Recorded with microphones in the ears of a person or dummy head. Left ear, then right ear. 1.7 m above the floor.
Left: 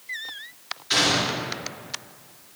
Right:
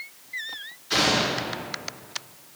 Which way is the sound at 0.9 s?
35° left (ahead or behind).